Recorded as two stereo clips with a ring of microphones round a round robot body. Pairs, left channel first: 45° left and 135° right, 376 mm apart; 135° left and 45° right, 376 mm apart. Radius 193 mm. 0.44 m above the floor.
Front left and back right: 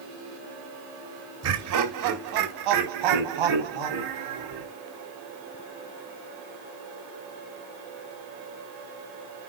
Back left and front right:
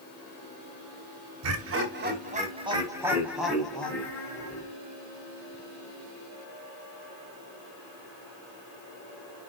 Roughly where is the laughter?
Right.